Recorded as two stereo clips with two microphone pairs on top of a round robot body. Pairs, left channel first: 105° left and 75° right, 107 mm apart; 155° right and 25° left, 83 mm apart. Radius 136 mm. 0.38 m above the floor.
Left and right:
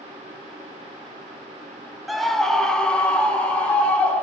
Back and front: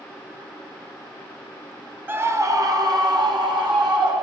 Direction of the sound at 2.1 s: Straight ahead.